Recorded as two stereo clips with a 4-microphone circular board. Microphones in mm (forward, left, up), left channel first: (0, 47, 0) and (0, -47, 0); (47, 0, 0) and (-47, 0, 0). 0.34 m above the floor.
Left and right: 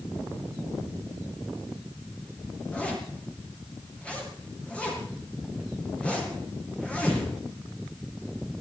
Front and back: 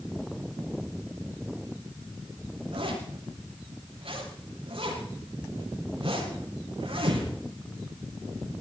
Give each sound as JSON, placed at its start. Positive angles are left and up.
{"t": 2.7, "sound": "a zipper", "azimuth_deg": 165, "distance_m": 6.0}